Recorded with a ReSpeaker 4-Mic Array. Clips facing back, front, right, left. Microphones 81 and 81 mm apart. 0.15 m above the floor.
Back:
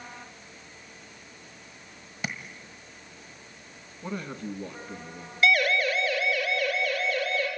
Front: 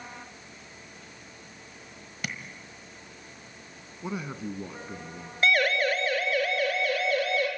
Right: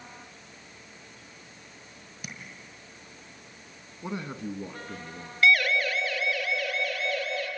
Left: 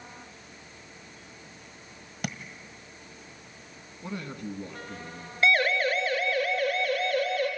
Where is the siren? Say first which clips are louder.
Back 1 dB, even; 40° left, 2 m; by 7.5 s 45° left, 4.5 m.